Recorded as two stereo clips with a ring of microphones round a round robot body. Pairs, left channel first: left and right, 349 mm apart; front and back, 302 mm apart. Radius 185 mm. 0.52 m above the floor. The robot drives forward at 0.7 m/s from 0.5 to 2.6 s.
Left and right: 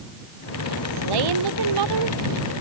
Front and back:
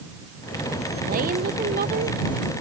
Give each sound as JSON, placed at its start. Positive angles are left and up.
{"t": 1.1, "sound": "a woman speaking", "azimuth_deg": -110}